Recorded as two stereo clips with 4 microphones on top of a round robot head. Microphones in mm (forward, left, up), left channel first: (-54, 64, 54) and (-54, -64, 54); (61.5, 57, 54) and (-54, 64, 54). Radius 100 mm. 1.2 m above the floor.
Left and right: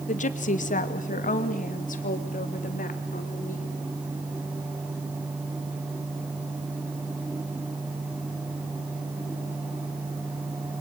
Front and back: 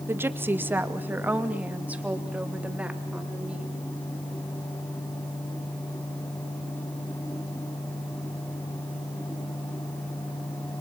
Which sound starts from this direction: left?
A woman speaking, at 0.1 s.